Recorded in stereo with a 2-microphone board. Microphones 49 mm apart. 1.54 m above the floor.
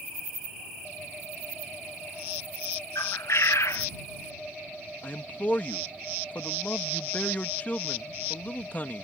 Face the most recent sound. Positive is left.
turn(degrees=35)  # may be behind; listen again after turning